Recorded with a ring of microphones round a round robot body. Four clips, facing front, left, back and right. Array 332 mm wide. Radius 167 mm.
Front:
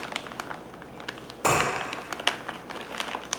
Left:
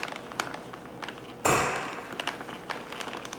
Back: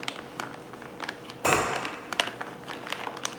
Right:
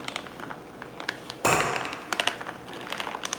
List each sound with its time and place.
1.4 s a finger snap: 80° right, 1.9 m